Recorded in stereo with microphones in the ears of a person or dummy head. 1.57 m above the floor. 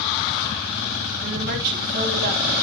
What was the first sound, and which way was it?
A woman speaking, 55° right (ahead or behind).